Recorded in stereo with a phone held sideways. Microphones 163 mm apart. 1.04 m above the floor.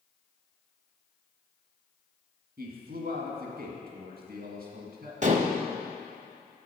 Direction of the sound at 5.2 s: 50° right (ahead or behind).